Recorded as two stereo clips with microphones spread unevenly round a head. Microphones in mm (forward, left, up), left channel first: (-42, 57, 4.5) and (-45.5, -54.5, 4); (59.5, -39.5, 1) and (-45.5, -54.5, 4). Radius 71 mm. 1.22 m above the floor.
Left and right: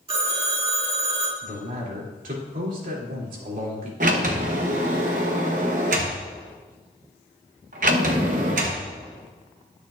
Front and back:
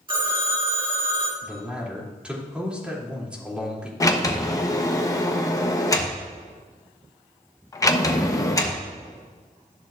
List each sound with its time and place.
0.1 s a phone ringing: 130° right, 1.8 m
1.4 s a man speaking: 90° right, 3 m
4.0 s a sliding door: 50° right, 1.1 m